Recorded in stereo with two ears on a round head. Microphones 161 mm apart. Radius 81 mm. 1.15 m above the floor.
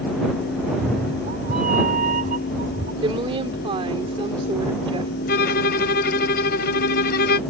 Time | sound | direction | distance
0.6 | a cat meowing | 45° right (ahead or behind) | ?
3.0 | a woman speaking | 30° right (ahead or behind) | ?
5.3 | a violin | 55° left (ahead or behind) | ?